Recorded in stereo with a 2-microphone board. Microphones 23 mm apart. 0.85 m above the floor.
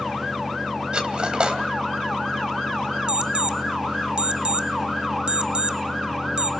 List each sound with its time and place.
0.9 s cutlery clinking: 45° right (ahead or behind), 3 m
3.1 s an alarm clock: 45° right (ahead or behind), 1.0 m